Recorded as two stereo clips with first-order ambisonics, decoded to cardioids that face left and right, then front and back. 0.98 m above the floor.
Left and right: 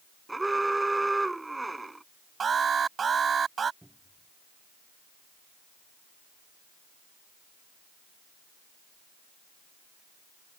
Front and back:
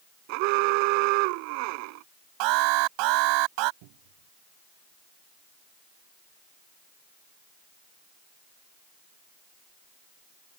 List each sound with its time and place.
0.3 s an alarm: 175° right
2.4 s an alarm: 160° right
3.8 s a cupboard door: straight behind